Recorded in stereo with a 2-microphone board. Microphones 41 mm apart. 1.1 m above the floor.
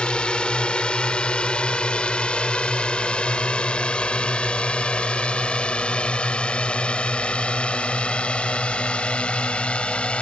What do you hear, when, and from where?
0.0 s a drone: 25° left (ahead or behind); by 10.2 s 30° left (ahead or behind)